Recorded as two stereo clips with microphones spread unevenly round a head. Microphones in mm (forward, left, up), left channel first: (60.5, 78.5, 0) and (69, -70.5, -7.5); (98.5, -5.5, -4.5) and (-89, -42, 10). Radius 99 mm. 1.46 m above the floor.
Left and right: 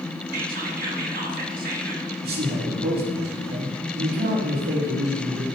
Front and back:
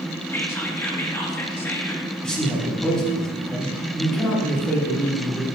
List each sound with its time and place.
0.3 s whispering: 70° right, 1.8 m
2.2 s a man speaking: 75° right, 2.5 m